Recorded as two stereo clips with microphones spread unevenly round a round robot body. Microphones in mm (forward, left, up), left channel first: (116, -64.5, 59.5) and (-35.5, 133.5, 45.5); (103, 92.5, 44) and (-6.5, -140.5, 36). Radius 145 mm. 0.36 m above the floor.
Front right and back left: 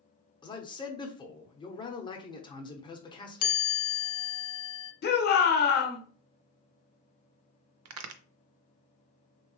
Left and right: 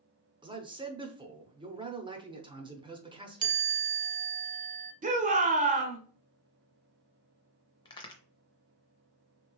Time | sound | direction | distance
0.4 | a man speaking | 100° right | 0.8 m
3.4 | a chime | 50° right | 0.6 m
5.0 | a shout | 75° right | 1.2 m
7.8 | a crack | 140° left | 0.5 m